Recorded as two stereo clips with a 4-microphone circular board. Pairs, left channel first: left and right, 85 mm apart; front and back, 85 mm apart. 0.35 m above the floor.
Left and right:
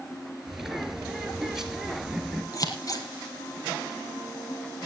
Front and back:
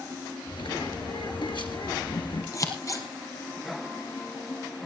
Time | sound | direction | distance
0.5 | a bird | 5° right | 2 m
2.5 | scissors | 45° left | 2.5 m